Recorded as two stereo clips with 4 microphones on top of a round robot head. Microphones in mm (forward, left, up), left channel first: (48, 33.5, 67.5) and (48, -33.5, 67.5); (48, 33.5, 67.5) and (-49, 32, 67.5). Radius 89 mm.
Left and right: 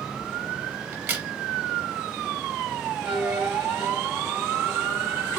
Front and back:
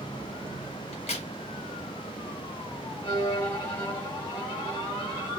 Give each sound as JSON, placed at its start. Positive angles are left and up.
{"t": 0.9, "sound": "a crack", "azimuth_deg": -35, "distance_m": 0.7}
{"t": 3.0, "sound": "a violin", "azimuth_deg": -60, "distance_m": 1.0}